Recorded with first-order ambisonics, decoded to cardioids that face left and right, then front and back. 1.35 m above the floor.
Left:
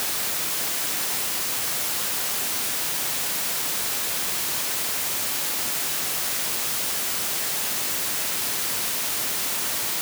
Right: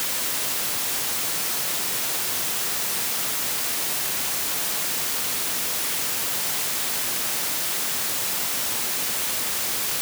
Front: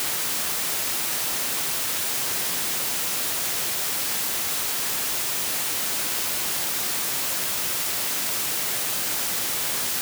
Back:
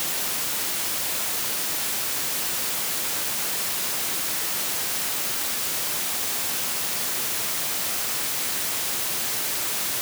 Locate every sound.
Only background noise.